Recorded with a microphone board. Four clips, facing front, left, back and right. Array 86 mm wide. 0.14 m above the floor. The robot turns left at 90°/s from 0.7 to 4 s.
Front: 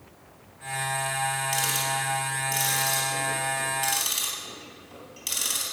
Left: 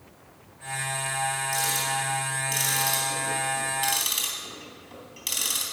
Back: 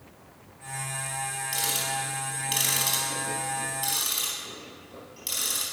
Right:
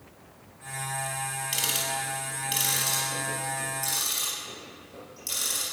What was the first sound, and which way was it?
Ticking, 75° right.